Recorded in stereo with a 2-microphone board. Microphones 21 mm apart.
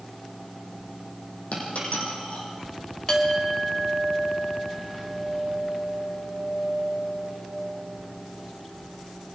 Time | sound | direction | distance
1.5 | a dropped coin | 85° left | 8 m
3.1 | a clink | 35° left (ahead or behind) | 3.5 m